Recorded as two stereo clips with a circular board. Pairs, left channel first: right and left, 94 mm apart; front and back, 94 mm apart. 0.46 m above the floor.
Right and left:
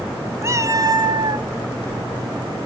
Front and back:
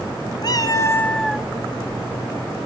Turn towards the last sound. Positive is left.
turn(degrees=100)